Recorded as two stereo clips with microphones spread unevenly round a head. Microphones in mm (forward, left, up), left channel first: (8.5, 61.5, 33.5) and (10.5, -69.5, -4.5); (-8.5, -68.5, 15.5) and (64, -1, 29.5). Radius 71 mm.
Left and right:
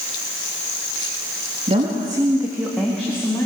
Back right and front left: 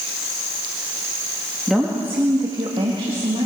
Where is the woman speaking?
45° right, 2 m; by 3.5 s 20° left, 3 m.